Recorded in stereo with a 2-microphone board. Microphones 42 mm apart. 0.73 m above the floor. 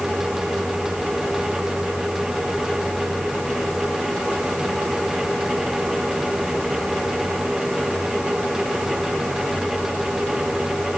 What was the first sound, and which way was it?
Only background noise.